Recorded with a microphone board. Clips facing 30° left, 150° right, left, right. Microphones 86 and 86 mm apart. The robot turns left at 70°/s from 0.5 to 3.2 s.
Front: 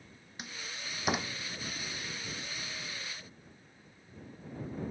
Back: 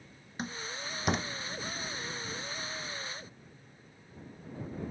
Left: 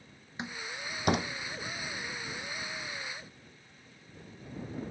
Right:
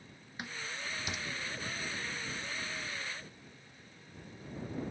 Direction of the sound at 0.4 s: 160° left.